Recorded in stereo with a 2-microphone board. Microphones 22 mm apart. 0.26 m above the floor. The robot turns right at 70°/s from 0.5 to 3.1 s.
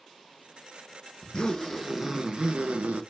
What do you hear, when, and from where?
1.2 s a zipper: 135° left, 0.6 m; by 3.0 s 95° right, 0.6 m